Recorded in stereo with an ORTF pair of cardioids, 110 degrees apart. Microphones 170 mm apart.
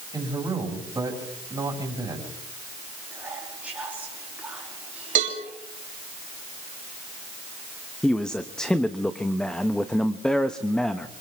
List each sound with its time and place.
0.1 s a man speaking: 20° right, 6.5 m
3.1 s whispering: 10° right, 2.5 m
5.2 s a cowbell: 50° right, 5.5 m
8.0 s a man speaking: 5° left, 0.9 m